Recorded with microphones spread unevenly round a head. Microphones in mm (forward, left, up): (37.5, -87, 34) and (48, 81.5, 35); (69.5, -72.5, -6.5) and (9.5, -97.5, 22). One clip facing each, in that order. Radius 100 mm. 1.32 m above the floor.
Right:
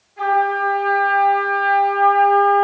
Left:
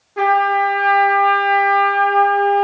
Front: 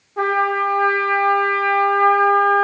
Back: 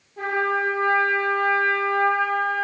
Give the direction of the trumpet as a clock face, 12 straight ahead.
9 o'clock.